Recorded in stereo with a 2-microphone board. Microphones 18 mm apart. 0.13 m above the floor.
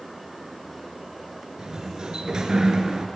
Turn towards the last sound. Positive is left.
turn(degrees=-45)  # may be behind; listen again after turning